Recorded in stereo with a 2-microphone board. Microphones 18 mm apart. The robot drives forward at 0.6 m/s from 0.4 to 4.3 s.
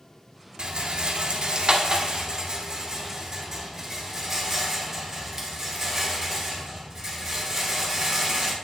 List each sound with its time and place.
0.6 s a rattle: 50° right (ahead or behind), 1.0 m; by 8.6 s 20° right (ahead or behind), 2 m